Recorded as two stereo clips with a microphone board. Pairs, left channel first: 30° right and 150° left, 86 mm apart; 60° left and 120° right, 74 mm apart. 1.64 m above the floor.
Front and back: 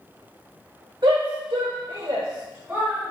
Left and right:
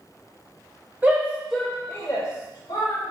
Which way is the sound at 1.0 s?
175° left.